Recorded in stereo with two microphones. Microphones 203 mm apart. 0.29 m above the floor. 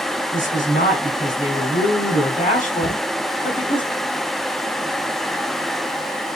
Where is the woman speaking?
45° left (ahead or behind), 1.5 m.